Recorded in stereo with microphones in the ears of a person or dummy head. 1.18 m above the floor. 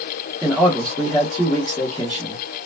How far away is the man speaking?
About 1.2 m.